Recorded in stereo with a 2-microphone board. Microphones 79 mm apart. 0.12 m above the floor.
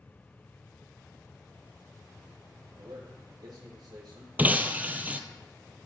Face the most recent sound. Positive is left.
turn(degrees=-20)  # may be behind; listen again after turning